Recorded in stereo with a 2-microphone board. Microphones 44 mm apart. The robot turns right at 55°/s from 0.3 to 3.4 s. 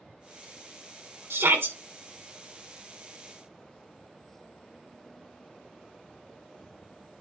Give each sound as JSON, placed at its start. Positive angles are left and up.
{"t": 1.3, "sound": "a shout", "side_deg": -70, "distance_m": 1.8}